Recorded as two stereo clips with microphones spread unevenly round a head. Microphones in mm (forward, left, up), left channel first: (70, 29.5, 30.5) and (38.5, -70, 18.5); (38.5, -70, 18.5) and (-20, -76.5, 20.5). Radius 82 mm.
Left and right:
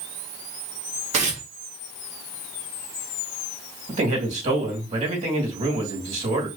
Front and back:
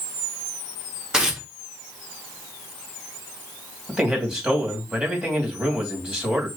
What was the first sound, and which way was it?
Tearing paper, 95° right.